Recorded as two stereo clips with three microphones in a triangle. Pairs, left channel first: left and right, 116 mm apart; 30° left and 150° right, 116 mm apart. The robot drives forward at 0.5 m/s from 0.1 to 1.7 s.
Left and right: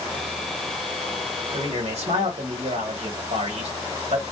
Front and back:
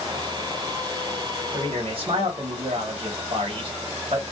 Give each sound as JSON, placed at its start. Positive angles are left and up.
{"t": 1.5, "sound": "a man speaking", "azimuth_deg": -110, "distance_m": 1.3}